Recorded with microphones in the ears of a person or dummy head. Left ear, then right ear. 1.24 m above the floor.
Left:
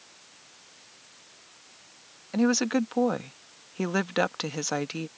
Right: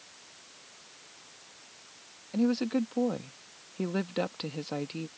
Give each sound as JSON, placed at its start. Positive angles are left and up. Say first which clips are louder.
{"t": 2.3, "sound": "a woman speaking", "louder": "left 4 dB", "side_deg": 45}